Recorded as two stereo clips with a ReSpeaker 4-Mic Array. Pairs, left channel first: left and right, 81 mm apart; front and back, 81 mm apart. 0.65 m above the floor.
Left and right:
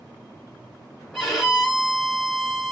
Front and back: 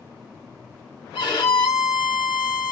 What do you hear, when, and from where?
1.1 s a violin: straight ahead, 2.0 m